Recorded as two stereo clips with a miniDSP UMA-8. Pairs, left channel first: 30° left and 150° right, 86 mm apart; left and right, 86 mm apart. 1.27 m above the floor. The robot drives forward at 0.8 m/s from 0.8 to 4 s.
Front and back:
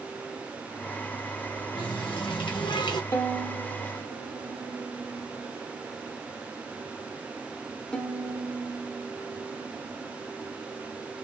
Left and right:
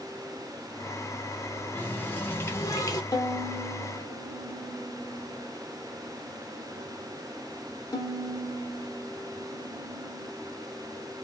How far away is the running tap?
About 1.7 m.